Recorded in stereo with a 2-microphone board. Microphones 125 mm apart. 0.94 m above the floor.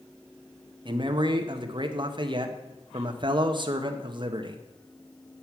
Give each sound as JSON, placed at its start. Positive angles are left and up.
{"t": 0.8, "sound": "a man speaking", "side_deg": -40, "distance_m": 0.8}